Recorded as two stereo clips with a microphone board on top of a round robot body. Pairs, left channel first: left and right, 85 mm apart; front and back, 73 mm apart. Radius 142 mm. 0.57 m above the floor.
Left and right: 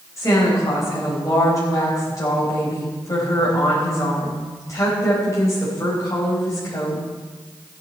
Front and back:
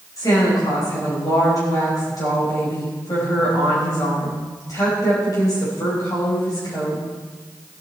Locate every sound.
0.2 s a woman speaking: 40° left, 4.5 m